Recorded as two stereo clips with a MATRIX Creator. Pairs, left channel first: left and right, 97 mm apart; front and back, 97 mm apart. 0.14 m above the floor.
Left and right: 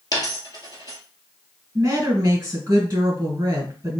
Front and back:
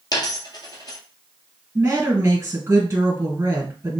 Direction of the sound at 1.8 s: 135° right.